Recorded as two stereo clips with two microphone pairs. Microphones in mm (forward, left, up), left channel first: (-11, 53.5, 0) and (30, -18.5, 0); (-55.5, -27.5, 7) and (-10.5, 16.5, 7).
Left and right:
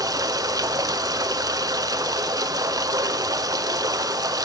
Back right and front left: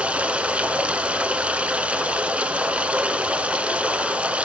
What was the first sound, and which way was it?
Running water, 25° right.